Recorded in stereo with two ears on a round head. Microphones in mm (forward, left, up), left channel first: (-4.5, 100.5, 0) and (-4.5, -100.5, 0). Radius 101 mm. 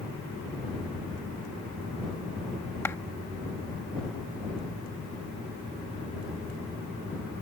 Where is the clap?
10° left (ahead or behind).